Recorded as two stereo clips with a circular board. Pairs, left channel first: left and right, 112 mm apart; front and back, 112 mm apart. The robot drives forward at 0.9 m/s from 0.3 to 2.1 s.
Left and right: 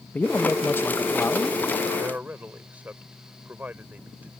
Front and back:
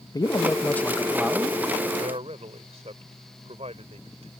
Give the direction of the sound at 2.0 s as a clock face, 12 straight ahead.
5 o'clock.